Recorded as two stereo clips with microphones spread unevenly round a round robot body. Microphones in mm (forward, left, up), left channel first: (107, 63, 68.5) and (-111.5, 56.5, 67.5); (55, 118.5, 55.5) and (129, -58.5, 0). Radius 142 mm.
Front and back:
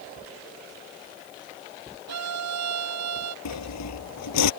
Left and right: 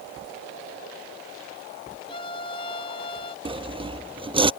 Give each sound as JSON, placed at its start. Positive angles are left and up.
{"t": 2.1, "sound": "a violin", "azimuth_deg": -175}
{"t": 3.5, "sound": "sawing", "azimuth_deg": 0}